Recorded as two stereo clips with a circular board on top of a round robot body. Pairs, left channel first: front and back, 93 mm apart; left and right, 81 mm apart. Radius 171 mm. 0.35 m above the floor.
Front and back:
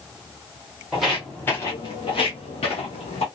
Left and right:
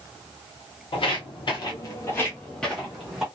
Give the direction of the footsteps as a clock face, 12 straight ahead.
9 o'clock.